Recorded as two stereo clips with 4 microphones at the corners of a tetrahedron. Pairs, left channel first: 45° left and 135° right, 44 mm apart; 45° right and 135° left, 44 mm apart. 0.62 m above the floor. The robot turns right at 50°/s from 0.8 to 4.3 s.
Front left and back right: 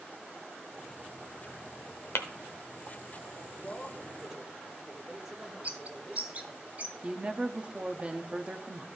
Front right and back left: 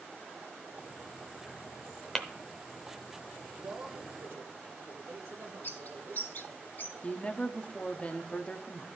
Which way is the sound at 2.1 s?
35° left.